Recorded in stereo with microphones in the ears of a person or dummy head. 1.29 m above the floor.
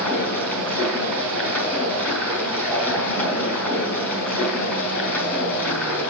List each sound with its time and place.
0.0 s running water: 10° left (ahead or behind), 5.5 m